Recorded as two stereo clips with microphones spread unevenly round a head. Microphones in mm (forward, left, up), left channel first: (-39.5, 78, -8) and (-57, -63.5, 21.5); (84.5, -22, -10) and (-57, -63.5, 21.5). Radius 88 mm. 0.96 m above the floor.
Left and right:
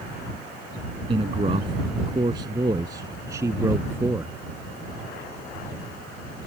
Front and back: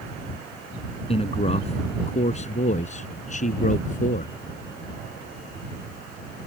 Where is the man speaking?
35° right; by 4.3 s 20° right.